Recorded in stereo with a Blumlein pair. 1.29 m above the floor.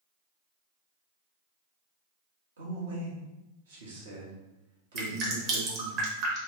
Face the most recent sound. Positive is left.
turn(degrees=-35)